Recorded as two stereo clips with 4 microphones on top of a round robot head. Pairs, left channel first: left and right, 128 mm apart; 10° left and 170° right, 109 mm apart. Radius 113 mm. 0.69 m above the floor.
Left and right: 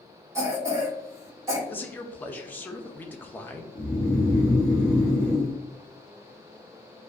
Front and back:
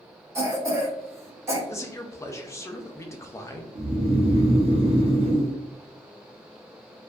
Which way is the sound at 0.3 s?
135° right.